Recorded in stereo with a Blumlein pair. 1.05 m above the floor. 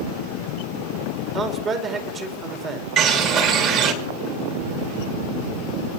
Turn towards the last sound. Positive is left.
turn(degrees=-35)